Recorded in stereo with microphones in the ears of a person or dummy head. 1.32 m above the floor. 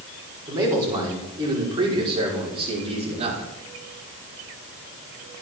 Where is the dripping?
I don't hear dripping.